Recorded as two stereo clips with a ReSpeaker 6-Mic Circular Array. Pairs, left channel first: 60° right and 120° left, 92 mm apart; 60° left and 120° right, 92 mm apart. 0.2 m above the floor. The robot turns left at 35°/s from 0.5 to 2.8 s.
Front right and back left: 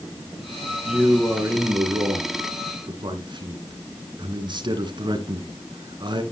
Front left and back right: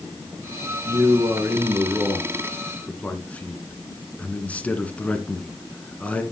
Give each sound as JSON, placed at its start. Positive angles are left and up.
{"t": 0.8, "sound": "a man speaking", "azimuth_deg": -160, "distance_m": 2.0}